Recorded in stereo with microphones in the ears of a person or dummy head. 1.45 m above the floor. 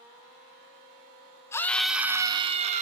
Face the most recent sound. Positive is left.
turn(degrees=-40)  # may be behind; listen again after turning